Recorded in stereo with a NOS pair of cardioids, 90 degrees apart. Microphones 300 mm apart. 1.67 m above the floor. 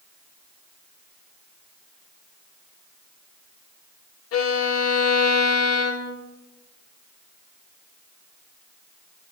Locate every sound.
4.3 s a violin: 60° left, 1.2 m